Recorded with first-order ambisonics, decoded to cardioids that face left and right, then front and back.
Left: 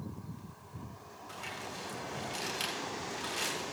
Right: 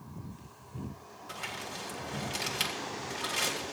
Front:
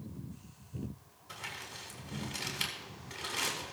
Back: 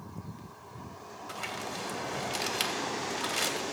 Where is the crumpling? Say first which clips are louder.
Right 3 dB, back 6 dB; 160° right, 2.5 m.